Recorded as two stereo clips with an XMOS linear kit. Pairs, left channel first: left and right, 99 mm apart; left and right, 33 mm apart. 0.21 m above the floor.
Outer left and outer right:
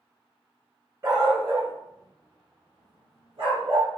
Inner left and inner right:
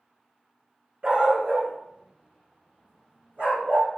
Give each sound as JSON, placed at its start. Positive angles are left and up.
{"t": 1.0, "sound": "a dog barking", "side_deg": -40, "distance_m": 0.8}